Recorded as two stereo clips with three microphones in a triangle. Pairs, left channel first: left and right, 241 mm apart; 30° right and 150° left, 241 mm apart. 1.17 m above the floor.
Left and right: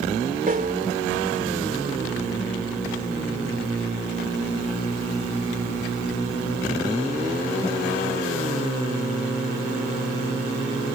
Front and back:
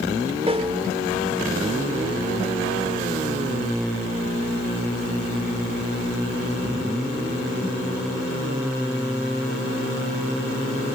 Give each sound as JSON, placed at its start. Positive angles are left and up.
{"t": 0.5, "sound": "a snare drum", "azimuth_deg": -145}